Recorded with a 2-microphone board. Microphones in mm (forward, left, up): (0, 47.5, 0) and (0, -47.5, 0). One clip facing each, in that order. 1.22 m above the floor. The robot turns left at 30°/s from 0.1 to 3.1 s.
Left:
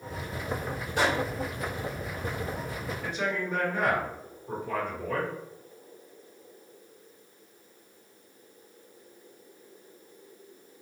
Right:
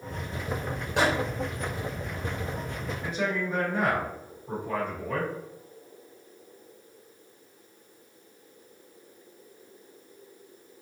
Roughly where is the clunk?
No clunk in this recording.